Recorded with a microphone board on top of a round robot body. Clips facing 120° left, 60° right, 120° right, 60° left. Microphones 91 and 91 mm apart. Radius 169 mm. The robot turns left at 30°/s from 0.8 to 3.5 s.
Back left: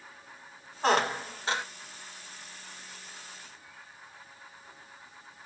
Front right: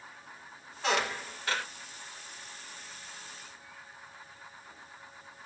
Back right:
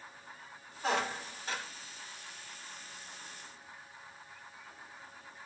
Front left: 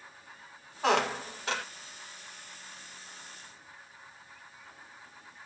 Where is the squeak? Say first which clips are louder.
Back left 5 dB, front left 6 dB; 70° left, 0.9 m; by 1.6 s 45° left, 0.9 m.